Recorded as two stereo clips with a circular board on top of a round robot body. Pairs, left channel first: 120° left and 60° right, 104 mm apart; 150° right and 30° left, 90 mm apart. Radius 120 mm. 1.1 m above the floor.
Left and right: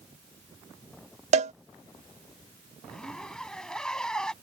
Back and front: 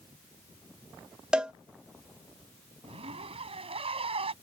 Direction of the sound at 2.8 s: 35° left.